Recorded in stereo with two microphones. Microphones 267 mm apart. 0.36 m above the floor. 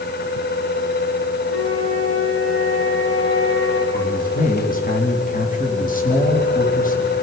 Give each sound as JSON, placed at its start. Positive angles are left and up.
{"t": 1.5, "sound": "a flute", "side_deg": 60, "distance_m": 9.0}
{"t": 3.9, "sound": "a man speaking", "side_deg": 30, "distance_m": 3.0}